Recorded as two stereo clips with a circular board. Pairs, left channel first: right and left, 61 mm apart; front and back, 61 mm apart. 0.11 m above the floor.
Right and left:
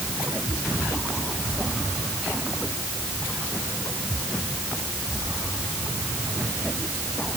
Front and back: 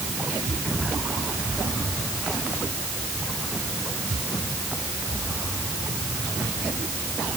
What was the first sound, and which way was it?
Only background noise.